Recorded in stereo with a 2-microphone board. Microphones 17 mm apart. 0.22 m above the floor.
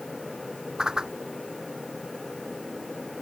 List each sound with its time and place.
0.8 s a whoosh: 45° right (ahead or behind)